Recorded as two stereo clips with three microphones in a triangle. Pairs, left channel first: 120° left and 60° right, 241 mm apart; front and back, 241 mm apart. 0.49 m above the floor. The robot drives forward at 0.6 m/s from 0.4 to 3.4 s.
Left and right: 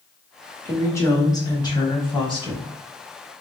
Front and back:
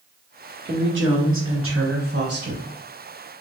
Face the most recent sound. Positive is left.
turn(degrees=-175)